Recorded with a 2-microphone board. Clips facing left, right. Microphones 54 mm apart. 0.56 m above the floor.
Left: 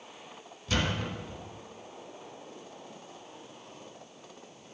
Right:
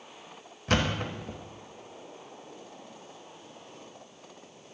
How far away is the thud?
About 0.8 m.